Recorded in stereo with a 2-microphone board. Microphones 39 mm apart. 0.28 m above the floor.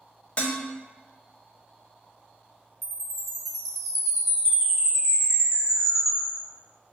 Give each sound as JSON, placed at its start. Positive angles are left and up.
{"t": 0.4, "sound": "dishes clattering", "side_deg": 30, "distance_m": 0.7}
{"t": 2.8, "sound": "a chime", "side_deg": -5, "distance_m": 1.2}